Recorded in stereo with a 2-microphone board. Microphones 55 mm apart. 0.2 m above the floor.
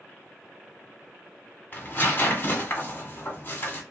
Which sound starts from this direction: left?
Tearing paper, at 1.7 s.